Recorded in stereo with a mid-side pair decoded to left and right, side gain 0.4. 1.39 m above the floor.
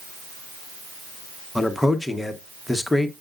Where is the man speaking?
15° left, 1.2 m.